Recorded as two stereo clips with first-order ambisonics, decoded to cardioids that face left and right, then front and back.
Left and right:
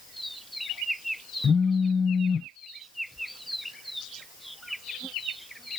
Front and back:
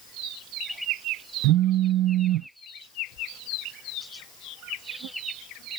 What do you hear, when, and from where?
1.4 s a phone buzzing: 160° left